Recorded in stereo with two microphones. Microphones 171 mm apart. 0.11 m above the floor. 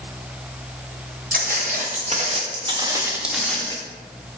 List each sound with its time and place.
1.3 s footsteps: 60° right (ahead or behind), 2.0 m; by 3.8 s 15° left (ahead or behind), 1.1 m